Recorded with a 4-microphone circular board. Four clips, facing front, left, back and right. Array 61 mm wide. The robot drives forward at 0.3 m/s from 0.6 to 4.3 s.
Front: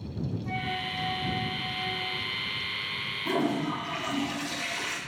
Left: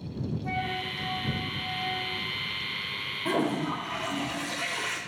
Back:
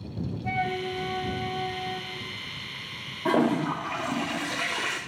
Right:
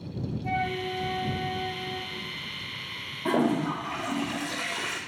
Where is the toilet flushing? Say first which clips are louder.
Right 3 dB, back 5 dB; 155° right, 2.5 m.